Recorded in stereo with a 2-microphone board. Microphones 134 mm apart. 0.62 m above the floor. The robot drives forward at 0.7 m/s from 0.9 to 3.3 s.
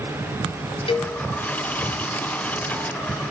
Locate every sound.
0.9 s a cowbell: 45° left (ahead or behind), 0.8 m; by 1.1 s 40° left (ahead or behind), 0.9 m